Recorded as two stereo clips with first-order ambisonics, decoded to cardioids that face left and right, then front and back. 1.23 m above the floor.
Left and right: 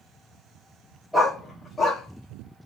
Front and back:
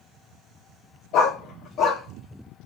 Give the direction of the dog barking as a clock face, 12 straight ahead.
12 o'clock.